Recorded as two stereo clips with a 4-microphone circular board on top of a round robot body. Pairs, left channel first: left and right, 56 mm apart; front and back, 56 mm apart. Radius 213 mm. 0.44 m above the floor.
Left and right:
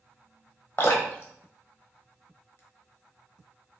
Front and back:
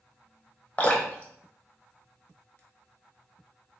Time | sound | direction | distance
0.8 | dripping | 60° left | 1.3 m